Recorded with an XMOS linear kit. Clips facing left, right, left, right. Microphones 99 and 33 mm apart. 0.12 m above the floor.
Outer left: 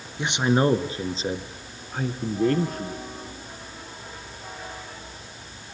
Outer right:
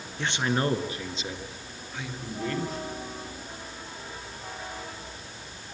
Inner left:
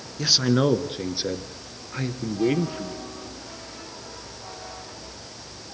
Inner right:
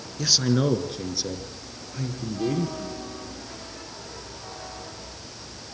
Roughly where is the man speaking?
Centre.